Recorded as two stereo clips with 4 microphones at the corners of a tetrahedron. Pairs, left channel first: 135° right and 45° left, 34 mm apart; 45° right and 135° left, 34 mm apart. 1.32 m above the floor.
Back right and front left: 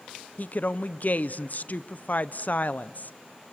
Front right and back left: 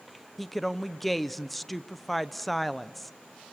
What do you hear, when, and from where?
0.4 s a woman speaking: 135° right, 0.7 m